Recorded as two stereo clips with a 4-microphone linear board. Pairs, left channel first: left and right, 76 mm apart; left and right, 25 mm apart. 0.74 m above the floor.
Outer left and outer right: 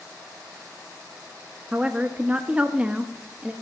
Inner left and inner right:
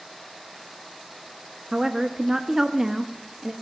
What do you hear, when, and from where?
1.7 s a woman speaking: 20° right (ahead or behind), 0.6 m